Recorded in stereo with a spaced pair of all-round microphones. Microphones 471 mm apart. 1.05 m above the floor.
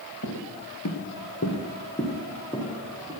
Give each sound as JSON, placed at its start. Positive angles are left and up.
{"t": 0.2, "sound": "footsteps", "side_deg": 50, "distance_m": 1.6}